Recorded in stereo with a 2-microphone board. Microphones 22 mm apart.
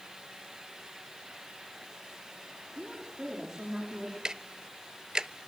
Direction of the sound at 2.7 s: 25° right (ahead or behind).